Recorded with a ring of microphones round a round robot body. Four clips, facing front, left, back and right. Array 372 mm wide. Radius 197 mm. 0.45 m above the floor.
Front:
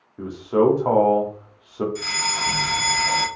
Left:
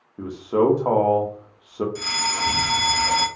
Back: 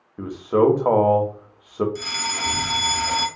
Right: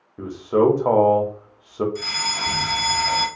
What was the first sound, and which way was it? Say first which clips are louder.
A man speaking: right 2 dB, even; 160° right.